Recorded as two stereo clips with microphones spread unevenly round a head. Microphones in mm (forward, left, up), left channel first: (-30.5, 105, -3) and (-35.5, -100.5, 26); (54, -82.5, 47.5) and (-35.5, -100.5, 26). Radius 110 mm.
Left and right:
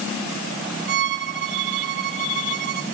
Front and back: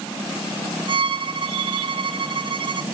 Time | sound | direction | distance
0.9 | a violin | 130° right | 0.7 m